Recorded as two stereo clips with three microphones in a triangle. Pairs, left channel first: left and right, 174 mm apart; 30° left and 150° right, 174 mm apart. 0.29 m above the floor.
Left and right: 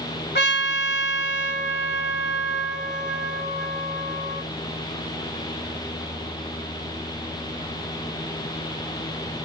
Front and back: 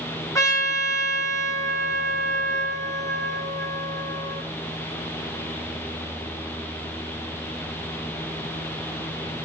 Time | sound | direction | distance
0.3 | a trumpet | 100° left | 0.9 m